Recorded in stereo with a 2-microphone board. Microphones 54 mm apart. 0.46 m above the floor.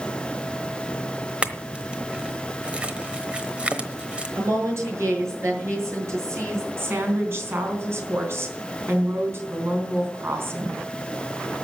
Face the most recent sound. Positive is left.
turn(degrees=-50)  # may be behind; listen again after turning